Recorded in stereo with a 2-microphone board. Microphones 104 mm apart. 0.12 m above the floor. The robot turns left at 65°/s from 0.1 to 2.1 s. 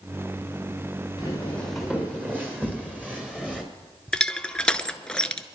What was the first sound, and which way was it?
Footsteps, 40° left (ahead or behind).